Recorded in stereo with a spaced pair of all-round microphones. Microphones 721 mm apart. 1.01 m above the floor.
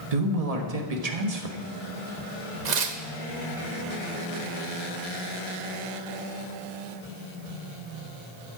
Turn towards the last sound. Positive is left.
turn(degrees=-70)  # may be behind; listen again after turning